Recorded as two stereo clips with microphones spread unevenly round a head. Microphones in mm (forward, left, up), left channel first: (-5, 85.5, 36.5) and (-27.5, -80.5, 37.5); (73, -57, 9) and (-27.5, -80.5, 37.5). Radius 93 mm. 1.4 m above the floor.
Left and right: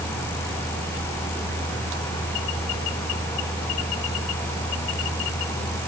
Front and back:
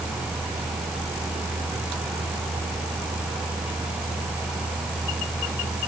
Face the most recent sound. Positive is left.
No sound to turn to.